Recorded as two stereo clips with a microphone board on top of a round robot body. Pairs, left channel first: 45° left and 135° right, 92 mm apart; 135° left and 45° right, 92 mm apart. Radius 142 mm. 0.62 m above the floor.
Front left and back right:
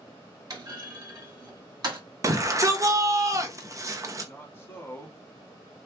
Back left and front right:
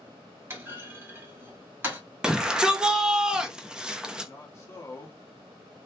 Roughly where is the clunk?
Right.